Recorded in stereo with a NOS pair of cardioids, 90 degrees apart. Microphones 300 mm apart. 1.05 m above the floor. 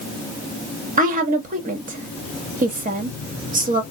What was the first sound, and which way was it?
A woman speaking, 25° right.